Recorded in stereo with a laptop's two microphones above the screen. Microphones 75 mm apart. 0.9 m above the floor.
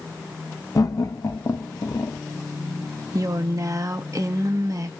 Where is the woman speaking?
50° right (ahead or behind), 0.6 m.